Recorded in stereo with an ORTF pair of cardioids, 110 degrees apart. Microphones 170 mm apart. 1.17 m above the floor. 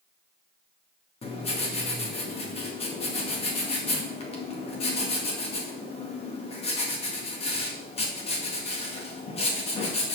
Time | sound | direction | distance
1.2 | writing | 35° left | 2 m